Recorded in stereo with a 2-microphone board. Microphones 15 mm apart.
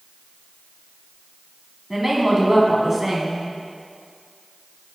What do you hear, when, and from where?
1.9 s a woman speaking: 10° right (ahead or behind), 1.5 m